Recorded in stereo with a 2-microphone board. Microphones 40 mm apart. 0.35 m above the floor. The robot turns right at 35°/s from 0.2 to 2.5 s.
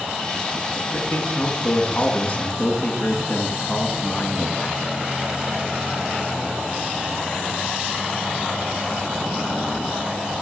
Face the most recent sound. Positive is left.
turn(degrees=145)